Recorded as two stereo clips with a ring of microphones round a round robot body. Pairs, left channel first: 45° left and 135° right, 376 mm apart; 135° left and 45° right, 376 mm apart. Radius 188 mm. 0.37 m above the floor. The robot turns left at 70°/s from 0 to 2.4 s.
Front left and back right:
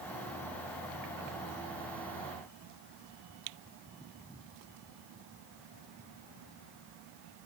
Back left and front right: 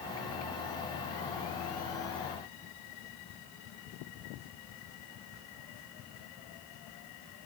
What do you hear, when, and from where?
Only background noise.